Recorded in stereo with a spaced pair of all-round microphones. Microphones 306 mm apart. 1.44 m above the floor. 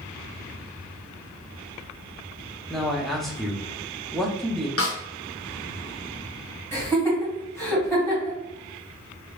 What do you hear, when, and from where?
2.7 s a man speaking: centre (ahead or behind), 0.7 m
4.8 s a snare drum: 50° left (ahead or behind), 0.7 m
6.7 s laughter: 10° left (ahead or behind), 1.9 m